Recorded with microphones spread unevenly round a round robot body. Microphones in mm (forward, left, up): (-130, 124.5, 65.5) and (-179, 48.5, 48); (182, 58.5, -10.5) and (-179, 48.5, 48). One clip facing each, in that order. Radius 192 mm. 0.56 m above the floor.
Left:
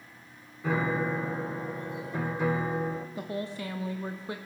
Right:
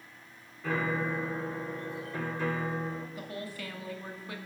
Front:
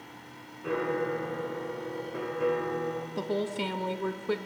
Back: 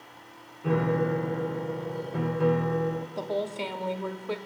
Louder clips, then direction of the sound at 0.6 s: Left 3 dB, back 4 dB; 135° left.